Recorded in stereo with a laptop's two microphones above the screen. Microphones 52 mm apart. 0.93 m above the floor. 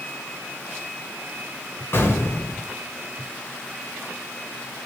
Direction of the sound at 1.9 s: 50° left (ahead or behind).